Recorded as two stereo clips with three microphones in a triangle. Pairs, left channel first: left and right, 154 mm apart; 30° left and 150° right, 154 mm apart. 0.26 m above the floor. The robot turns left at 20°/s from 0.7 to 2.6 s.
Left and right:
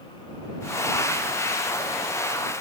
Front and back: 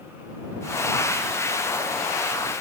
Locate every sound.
Only background noise.